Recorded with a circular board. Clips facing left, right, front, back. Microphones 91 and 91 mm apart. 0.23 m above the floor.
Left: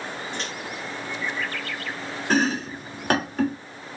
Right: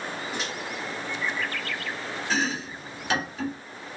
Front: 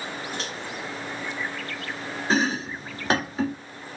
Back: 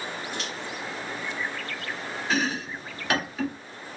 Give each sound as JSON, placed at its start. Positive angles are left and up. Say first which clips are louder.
{"t": 0.3, "sound": "a microwave", "louder": "right 1 dB, front 1 dB", "azimuth_deg": -10, "distance_m": 1.1}
{"t": 2.3, "sound": "chopping", "louder": "left 7 dB, front 4 dB", "azimuth_deg": 55, "distance_m": 1.0}